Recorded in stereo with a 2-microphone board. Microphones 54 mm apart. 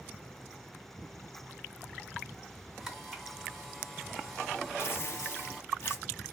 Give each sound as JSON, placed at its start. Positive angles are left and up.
{"t": 2.8, "sound": "a camera shutter", "side_deg": 0, "distance_m": 1.9}
{"t": 4.8, "sound": "tearing paper", "side_deg": 50, "distance_m": 0.8}